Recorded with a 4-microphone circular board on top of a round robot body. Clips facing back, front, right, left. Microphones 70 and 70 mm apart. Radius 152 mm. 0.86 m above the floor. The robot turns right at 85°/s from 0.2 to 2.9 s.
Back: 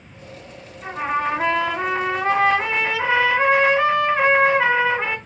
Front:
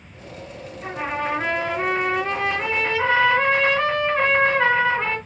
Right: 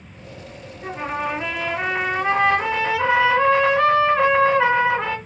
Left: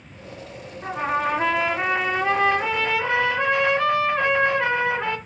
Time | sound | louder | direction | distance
0.8 | a trumpet | back 3 dB, left 2 dB | 85° left | 1.5 m